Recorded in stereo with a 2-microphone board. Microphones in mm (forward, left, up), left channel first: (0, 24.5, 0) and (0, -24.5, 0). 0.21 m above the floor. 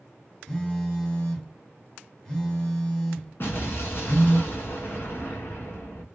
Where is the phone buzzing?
15° left (ahead or behind), 1.8 m.